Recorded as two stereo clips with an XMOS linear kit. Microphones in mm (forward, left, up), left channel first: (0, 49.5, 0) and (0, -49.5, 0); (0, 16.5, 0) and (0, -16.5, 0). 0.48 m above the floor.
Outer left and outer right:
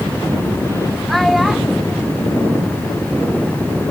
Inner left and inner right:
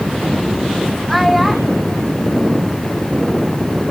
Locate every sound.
1.1 s a child speaking: centre (ahead or behind); by 3.5 s 5° right (ahead or behind)